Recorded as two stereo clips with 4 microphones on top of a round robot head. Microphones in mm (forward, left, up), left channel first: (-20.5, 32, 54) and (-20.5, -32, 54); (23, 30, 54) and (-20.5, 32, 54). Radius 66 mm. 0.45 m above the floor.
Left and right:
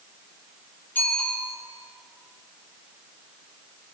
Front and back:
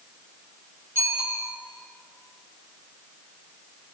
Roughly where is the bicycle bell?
Behind left.